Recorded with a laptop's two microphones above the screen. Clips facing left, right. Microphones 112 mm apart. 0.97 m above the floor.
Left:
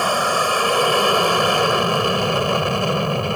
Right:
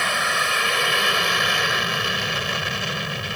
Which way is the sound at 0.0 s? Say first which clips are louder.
Left 6 dB; 35° left (ahead or behind).